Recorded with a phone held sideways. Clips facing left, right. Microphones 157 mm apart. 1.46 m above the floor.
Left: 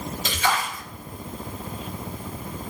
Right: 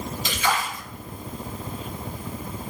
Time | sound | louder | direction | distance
0.2 | a splash | even | 45° left (ahead or behind) | 1.8 m